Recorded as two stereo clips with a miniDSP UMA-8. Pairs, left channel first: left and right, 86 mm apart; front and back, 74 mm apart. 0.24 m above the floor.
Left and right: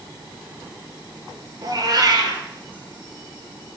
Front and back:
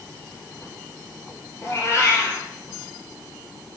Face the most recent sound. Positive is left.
turn(degrees=-50)